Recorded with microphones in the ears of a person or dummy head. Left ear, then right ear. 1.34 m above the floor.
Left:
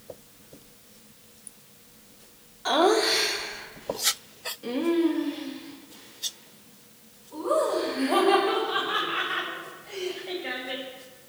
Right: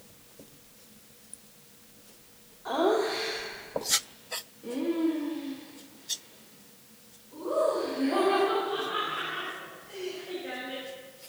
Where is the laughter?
75° left (ahead or behind), 1.4 m; by 10.8 s 55° left (ahead or behind), 5 m.